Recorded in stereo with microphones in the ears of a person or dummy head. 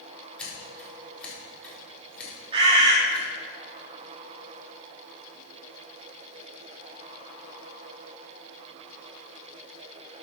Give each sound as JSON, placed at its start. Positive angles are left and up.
{"t": 0.4, "sound": "scissors", "side_deg": 10, "distance_m": 4.5}
{"t": 2.5, "sound": "a bird", "side_deg": -30, "distance_m": 4.0}